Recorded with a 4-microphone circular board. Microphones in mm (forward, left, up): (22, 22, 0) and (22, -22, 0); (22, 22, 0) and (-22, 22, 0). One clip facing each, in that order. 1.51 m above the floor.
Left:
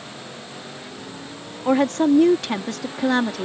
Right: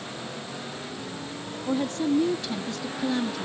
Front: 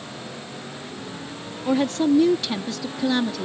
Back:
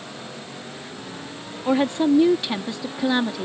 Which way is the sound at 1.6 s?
110° left.